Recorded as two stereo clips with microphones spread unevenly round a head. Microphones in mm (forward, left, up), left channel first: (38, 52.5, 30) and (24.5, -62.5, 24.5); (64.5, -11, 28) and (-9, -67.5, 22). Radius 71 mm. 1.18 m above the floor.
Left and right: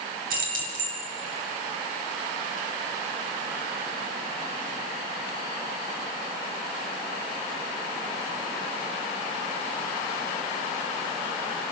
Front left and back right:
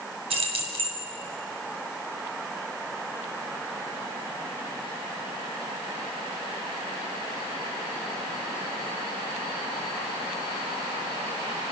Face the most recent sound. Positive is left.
turn(degrees=-120)